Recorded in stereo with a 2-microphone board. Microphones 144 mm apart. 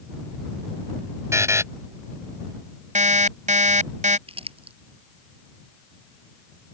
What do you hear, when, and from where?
1.3 s a buzzer: 20° right (ahead or behind)
3.0 s an alarm clock: 70° right (ahead or behind)
4.3 s crumpling: 45° right (ahead or behind)